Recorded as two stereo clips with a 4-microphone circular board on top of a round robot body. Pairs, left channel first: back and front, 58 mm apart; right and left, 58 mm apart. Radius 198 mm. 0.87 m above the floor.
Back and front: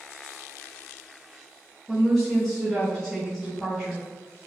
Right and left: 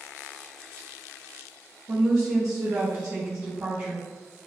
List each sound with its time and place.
1.9 s a woman speaking: 95° left, 1.0 m